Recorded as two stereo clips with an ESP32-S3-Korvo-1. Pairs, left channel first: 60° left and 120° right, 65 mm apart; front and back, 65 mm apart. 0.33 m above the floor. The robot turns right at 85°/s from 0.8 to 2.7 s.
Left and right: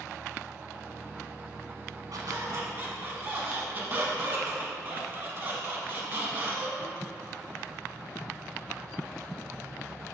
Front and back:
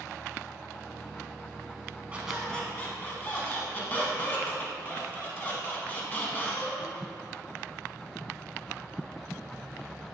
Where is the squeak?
115° right, 0.5 m; by 7.0 s 65° right, 0.5 m.